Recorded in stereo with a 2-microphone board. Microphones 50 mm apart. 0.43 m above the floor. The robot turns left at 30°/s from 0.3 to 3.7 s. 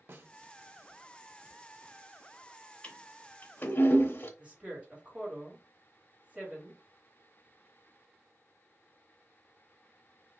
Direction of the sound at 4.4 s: 25° right (ahead or behind).